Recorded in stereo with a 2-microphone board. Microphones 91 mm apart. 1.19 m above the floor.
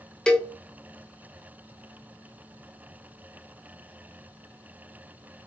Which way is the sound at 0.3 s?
10° left (ahead or behind).